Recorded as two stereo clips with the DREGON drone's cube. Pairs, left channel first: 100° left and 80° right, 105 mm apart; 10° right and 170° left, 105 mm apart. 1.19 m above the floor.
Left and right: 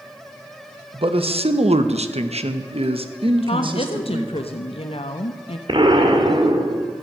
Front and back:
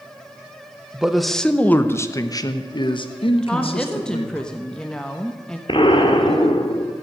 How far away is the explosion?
About 1.6 m.